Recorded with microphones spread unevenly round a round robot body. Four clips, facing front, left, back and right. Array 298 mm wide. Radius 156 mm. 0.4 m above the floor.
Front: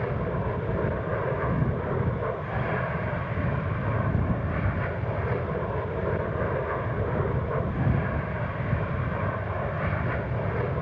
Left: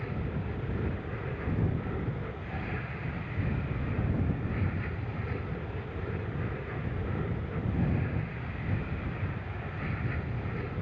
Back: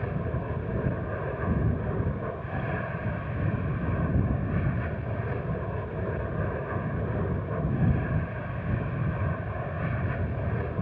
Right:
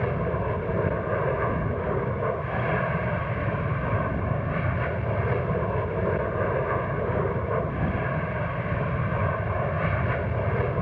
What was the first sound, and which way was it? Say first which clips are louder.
An aircraft: right 10 dB, front 4 dB; 80° right.